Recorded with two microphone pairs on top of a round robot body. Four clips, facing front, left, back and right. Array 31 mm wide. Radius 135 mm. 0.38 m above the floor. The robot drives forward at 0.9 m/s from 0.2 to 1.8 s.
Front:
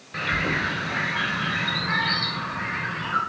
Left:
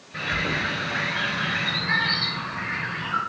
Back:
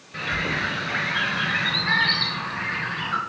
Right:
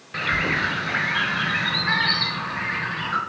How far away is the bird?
About 1.1 m.